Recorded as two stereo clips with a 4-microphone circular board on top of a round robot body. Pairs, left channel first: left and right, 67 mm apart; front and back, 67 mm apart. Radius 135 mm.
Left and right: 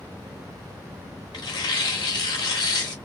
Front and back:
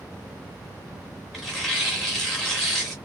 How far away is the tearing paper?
About 0.9 m.